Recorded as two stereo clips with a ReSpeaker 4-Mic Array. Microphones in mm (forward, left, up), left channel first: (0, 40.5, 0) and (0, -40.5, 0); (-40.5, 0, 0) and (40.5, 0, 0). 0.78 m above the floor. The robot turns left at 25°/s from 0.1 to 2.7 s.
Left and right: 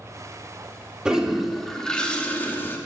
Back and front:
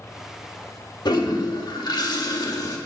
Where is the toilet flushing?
170° right, 1.6 m; by 2.8 s 150° left, 1.6 m.